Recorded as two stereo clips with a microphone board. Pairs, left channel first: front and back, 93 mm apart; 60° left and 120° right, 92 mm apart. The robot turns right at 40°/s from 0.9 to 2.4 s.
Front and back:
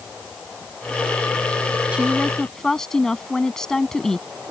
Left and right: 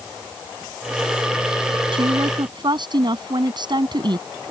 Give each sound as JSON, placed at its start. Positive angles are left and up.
{"t": 1.9, "sound": "a woman speaking", "azimuth_deg": -105}